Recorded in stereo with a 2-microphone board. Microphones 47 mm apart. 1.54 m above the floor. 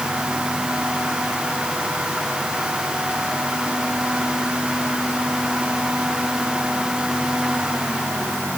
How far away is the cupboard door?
I don't hear a cupboard door.